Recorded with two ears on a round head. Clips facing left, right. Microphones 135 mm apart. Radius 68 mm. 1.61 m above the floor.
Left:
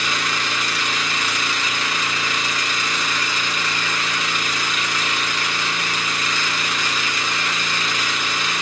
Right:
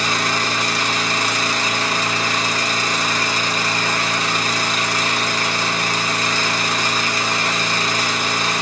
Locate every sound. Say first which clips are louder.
0.0 s an engine running: right 4 dB; 35° right (ahead or behind), 0.9 m